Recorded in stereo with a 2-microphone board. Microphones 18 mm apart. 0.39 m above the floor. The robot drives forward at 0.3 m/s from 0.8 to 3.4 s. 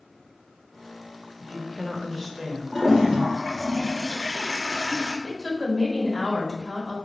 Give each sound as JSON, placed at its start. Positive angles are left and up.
{"t": 1.4, "sound": "a woman speaking", "side_deg": 0, "distance_m": 0.8}
{"t": 2.7, "sound": "a toilet flushing", "side_deg": -15, "distance_m": 1.3}
{"t": 5.2, "sound": "a woman speaking", "side_deg": 0, "distance_m": 1.9}